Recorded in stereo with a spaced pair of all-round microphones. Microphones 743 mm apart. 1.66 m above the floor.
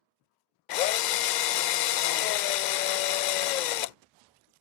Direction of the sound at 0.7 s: 75° left (ahead or behind).